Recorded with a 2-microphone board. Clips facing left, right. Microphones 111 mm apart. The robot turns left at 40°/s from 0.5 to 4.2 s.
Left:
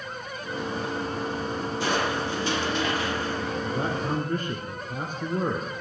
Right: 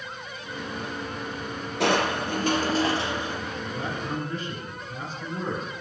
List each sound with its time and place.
1.8 s crushing: 105° right, 2 m; by 3.4 s 170° right, 2 m
3.6 s a man speaking: 40° left (ahead or behind), 1.8 m; by 5.7 s 45° left (ahead or behind), 1.8 m